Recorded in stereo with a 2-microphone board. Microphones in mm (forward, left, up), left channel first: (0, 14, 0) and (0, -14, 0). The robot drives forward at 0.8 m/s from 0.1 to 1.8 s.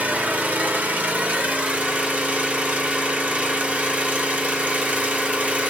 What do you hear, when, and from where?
0.0 s an engine running: 65° right (ahead or behind), 1.3 m; by 5.7 s 50° right (ahead or behind), 1.5 m